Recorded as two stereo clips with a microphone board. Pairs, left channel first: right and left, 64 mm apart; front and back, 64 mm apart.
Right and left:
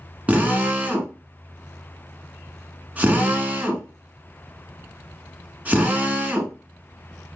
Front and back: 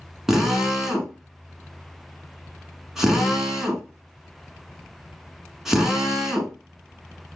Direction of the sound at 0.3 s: 105° left.